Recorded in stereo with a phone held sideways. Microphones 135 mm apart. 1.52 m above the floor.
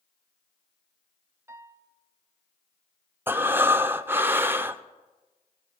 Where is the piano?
20° right (ahead or behind), 0.7 m.